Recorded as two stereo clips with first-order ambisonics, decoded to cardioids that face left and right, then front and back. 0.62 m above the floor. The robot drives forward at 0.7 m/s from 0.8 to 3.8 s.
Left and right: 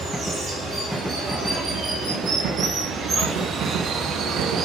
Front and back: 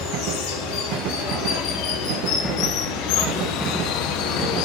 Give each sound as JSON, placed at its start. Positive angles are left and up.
{"t": 0.0, "sound": "running water", "azimuth_deg": -10, "distance_m": 3.5}